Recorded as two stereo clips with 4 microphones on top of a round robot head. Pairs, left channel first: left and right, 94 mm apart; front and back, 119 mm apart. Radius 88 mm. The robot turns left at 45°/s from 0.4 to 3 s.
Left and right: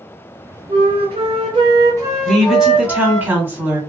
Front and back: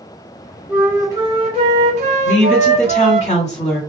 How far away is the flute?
About 0.5 m.